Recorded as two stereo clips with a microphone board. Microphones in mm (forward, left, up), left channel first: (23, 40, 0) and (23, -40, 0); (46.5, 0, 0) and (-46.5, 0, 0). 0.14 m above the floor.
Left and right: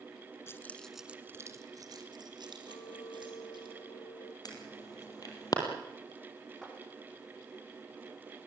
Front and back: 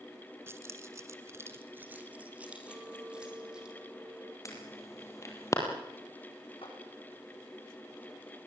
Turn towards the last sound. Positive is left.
turn(degrees=5)